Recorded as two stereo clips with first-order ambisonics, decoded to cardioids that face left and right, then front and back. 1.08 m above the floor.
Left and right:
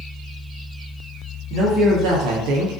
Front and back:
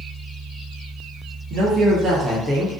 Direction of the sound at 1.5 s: 135° right.